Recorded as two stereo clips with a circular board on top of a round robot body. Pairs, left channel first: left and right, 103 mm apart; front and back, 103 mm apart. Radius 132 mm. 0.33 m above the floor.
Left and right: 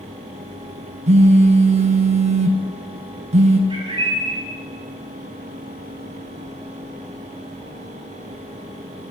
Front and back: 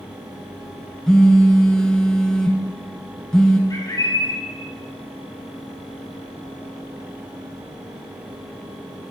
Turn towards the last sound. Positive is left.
turn(degrees=-55)